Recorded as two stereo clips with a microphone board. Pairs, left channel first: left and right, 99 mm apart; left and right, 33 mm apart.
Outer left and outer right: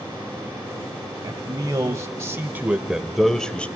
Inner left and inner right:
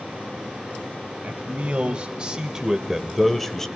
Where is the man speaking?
40° right (ahead or behind), 1.5 m; by 3.7 s 15° left (ahead or behind), 1.1 m.